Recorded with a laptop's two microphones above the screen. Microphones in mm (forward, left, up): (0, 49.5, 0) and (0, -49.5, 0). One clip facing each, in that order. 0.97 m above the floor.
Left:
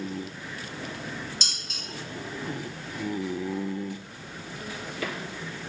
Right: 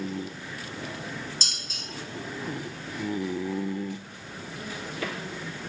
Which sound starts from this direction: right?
Dishes clattering, at 1.4 s.